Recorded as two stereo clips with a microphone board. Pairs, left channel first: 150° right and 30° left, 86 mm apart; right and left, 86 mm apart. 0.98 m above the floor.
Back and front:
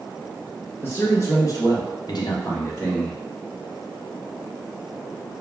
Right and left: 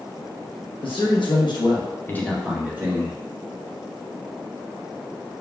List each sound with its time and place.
0.8 s a man speaking: 90° right, 1.1 m; by 3.2 s 140° left, 0.9 m